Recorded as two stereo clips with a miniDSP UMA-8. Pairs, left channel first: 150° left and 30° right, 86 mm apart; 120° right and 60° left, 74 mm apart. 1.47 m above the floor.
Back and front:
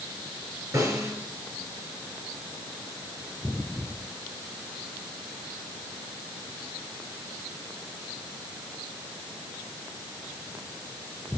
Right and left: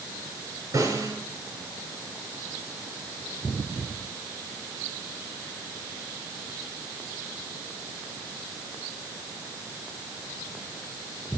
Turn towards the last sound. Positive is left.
turn(degrees=20)